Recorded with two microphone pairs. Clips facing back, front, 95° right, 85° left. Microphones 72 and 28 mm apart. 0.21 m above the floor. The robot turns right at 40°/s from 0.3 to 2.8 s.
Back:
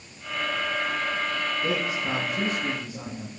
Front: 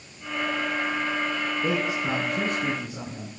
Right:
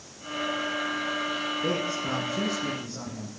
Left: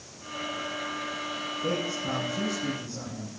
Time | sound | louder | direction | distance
1.6 | a man speaking | front 1 dB, left 2 dB | 75° right | 3.5 m